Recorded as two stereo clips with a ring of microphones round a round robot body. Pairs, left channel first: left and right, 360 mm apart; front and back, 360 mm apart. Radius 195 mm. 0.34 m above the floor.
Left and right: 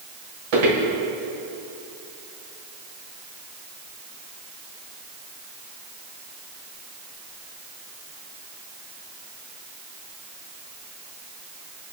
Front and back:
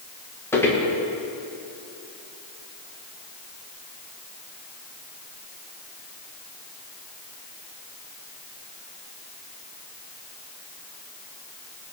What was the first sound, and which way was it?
Footsteps, 85° right.